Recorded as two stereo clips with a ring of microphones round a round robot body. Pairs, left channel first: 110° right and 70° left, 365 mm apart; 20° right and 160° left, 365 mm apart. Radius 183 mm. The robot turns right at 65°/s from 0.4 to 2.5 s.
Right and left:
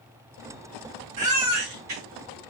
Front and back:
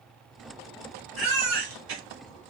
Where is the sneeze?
I don't hear a sneeze.